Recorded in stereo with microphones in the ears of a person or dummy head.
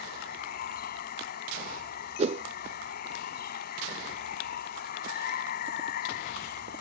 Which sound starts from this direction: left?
Running water, at 0.0 s.